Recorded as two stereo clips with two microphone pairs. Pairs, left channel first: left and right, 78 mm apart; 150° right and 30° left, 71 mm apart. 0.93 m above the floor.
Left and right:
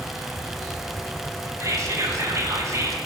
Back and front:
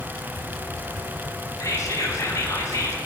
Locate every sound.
1.6 s whispering: 125° right, 0.7 m